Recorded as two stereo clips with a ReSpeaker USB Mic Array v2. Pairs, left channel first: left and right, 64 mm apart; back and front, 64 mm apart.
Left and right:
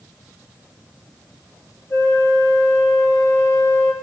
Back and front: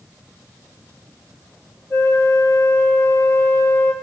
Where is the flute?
130° left, 1.5 m.